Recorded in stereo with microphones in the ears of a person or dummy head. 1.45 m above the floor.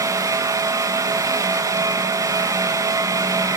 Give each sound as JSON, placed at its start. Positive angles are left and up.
{"t": 0.0, "sound": "a fan", "side_deg": -15, "distance_m": 1.1}